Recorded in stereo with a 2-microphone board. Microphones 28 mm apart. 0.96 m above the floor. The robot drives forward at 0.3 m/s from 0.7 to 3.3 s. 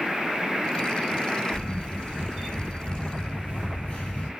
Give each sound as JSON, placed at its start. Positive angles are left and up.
{"t": 1.5, "sound": "a camera shutter", "side_deg": 80, "distance_m": 2.5}